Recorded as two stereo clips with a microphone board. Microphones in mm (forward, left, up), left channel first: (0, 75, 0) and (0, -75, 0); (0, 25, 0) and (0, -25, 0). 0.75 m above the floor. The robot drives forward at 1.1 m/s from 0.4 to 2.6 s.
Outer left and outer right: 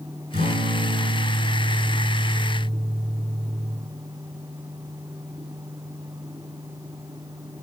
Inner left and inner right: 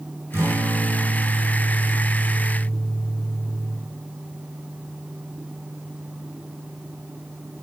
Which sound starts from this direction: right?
A guitar, at 0.3 s.